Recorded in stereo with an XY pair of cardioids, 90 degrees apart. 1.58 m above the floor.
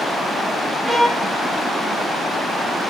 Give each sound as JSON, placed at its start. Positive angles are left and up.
{"t": 0.8, "sound": "a violin", "azimuth_deg": -5, "distance_m": 1.5}